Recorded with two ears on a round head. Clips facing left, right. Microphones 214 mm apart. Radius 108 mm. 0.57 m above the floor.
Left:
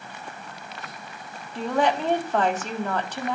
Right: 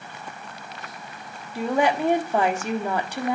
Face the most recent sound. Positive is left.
turn(degrees=-10)  # may be behind; listen again after turning